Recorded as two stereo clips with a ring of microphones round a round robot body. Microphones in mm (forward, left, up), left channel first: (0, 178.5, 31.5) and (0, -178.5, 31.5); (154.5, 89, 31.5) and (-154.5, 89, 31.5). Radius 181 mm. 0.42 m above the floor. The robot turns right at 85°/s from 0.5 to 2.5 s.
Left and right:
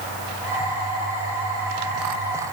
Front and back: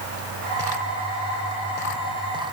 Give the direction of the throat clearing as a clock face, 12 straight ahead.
I don't hear throat clearing.